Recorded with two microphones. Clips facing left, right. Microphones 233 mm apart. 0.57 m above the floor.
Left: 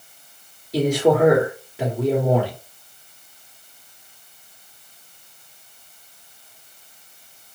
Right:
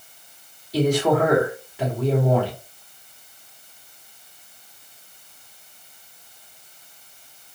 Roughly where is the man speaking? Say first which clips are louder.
Left 2 dB; left.